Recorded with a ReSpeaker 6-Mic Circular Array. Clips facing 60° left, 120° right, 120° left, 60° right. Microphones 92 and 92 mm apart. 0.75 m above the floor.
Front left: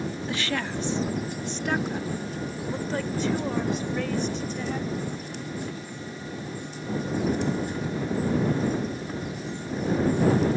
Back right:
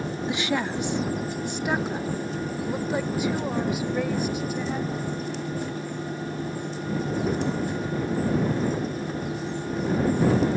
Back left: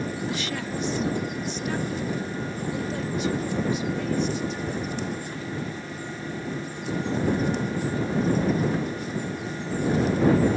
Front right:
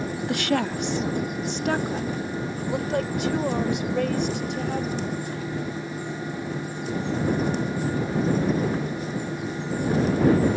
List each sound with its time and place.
0.3 s a woman speaking: 55° right; by 5.1 s 40° right